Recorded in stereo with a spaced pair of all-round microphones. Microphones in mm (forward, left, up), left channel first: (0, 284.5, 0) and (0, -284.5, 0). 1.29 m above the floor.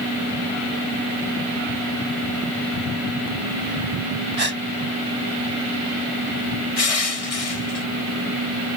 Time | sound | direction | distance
4.4 | a gasp | 85° right | ?
6.8 | crushing | 75° left (ahead or behind) | ?